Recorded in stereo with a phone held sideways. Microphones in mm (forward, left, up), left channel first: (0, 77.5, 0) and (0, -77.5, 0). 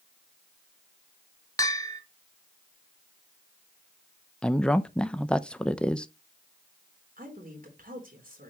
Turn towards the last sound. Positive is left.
turn(degrees=-65)  # may be behind; listen again after turning